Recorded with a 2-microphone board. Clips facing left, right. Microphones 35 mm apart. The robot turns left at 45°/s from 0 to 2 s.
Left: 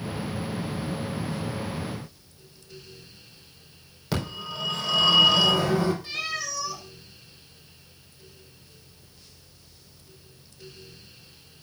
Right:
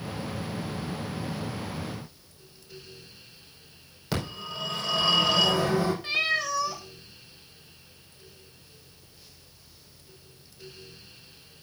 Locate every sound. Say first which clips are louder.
4.1 s a phone ringing: left 2 dB; centre (ahead or behind), 5 m
6.0 s a cat meowing: right 5 dB; 35° right (ahead or behind), 1.7 m